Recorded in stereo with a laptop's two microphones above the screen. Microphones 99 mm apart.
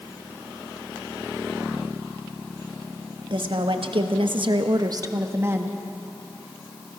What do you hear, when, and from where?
3.3 s a woman speaking: 65° right (ahead or behind), 1.6 m; by 5.8 s 20° right (ahead or behind), 1.6 m